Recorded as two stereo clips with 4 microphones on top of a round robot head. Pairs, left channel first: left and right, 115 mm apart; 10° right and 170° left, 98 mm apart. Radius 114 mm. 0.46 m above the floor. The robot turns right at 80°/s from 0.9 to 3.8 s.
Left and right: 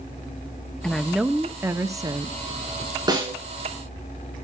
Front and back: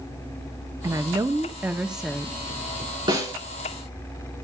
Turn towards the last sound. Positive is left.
turn(degrees=-85)